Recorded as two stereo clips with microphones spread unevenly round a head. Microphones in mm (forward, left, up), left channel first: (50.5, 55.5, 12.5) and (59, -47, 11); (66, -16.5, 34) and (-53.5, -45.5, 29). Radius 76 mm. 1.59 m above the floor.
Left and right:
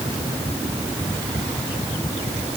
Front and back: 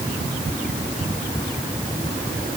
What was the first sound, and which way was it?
Only background noise.